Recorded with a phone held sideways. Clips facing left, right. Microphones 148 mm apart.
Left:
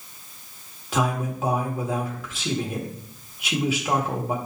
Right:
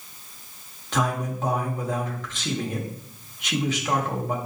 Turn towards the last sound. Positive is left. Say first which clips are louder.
# left 1 dB
turn(degrees=10)  # may be behind; listen again after turning